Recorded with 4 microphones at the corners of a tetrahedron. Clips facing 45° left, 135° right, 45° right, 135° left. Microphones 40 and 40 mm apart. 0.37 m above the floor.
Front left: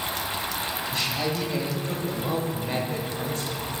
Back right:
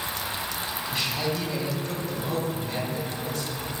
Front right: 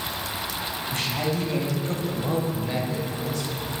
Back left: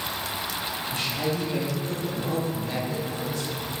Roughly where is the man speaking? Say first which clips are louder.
Even, front right 1 dB; ahead right.